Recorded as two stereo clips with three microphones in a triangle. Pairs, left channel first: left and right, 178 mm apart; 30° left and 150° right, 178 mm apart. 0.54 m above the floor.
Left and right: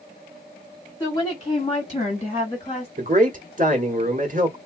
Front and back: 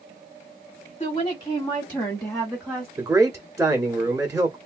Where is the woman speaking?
40° left, 1.2 m; by 2.9 s 130° left, 1.6 m.